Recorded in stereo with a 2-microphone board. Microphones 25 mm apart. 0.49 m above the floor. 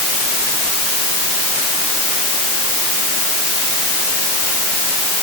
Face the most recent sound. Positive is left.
No sound to turn to.